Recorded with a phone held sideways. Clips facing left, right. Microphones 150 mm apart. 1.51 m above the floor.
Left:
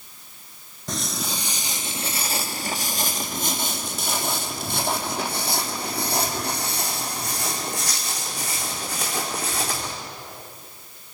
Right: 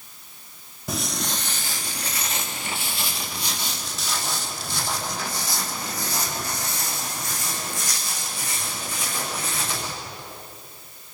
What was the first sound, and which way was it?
Footsteps, 5° right (ahead or behind).